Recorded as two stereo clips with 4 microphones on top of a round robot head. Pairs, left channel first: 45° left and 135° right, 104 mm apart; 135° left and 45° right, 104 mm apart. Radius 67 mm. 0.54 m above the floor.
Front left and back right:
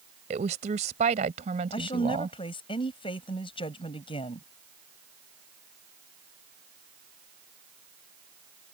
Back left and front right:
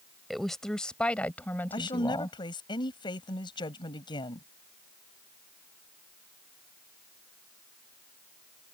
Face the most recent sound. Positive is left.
turn(degrees=90)